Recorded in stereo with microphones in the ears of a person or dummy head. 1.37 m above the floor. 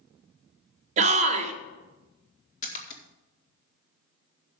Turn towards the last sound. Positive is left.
turn(degrees=45)  # may be behind; listen again after turning